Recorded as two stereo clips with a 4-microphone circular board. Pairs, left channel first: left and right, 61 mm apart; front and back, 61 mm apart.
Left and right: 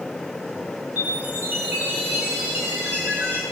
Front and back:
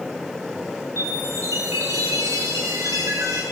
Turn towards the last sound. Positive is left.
turn(degrees=-150)